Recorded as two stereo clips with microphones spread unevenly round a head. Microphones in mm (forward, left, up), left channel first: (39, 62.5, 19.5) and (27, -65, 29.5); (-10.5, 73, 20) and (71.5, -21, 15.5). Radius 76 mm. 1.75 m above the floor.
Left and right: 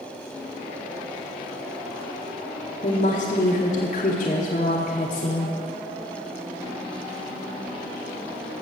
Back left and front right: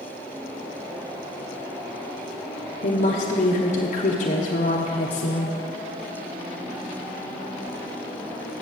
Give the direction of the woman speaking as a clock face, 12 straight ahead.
8 o'clock.